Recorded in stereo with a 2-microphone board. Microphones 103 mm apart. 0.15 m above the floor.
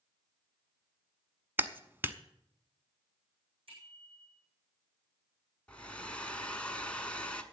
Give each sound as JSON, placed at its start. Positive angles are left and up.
{"t": 1.6, "sound": "a clap", "side_deg": -20, "distance_m": 0.8}
{"t": 3.7, "sound": "a bicycle bell", "side_deg": -60, "distance_m": 7.0}
{"t": 5.7, "sound": "a hair dryer", "side_deg": 10, "distance_m": 1.2}